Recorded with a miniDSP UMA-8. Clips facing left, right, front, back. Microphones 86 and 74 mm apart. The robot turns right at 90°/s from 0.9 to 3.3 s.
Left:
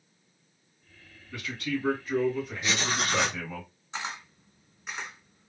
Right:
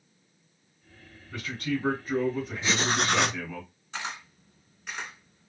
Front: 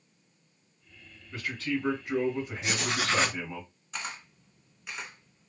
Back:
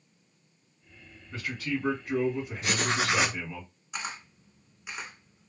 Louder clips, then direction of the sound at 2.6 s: Right 4 dB, back 3 dB; 150° right.